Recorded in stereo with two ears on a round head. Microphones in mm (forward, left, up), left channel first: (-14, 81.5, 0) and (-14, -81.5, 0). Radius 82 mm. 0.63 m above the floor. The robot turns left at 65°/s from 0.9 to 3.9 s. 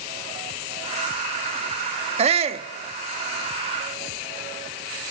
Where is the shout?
85° right, 1.1 m; by 2.7 s 120° right, 1.1 m.